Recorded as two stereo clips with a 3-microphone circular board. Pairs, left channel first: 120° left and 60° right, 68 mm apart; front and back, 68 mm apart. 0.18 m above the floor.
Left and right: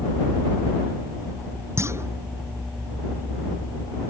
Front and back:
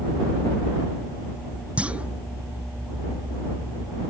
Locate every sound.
1.8 s a clunk: 110° right